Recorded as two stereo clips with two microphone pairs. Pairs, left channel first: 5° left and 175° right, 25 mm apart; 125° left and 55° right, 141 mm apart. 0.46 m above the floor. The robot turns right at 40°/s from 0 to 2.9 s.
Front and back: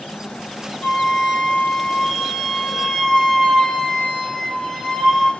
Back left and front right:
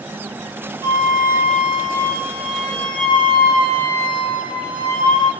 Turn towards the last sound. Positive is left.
turn(degrees=75)